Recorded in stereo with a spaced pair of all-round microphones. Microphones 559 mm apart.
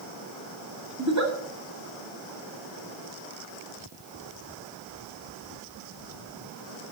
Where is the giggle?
30° right (ahead or behind), 2 m.